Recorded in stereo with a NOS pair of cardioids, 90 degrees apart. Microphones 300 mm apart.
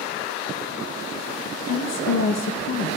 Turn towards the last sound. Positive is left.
turn(degrees=60)